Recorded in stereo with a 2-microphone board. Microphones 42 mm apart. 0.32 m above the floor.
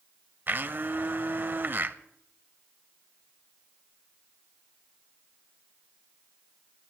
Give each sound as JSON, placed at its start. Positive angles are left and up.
{"t": 0.5, "sound": "a blender", "side_deg": -50, "distance_m": 0.6}